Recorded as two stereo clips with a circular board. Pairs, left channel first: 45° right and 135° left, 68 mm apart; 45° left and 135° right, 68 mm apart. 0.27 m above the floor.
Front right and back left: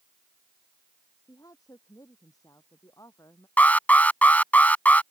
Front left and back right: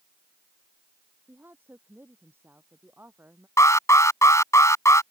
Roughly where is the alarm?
Ahead.